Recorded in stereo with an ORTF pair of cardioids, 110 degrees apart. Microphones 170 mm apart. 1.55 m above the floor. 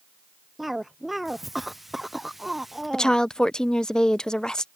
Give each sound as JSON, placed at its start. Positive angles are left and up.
{"t": 0.6, "sound": "a cough", "azimuth_deg": 0}
{"t": 2.9, "sound": "a woman speaking", "azimuth_deg": 5}